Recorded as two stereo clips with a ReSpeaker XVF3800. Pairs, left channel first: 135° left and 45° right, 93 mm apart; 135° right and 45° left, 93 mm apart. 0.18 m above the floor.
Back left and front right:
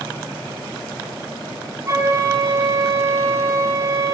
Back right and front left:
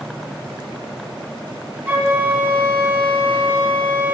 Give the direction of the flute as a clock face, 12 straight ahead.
12 o'clock.